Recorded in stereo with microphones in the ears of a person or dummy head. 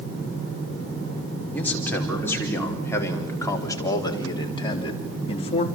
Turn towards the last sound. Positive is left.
turn(degrees=30)  # may be behind; listen again after turning